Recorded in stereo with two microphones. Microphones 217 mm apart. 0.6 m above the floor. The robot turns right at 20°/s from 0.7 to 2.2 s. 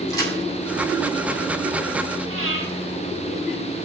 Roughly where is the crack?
Centre.